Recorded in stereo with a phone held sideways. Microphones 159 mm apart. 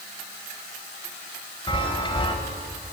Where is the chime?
30° left (ahead or behind), 0.8 m.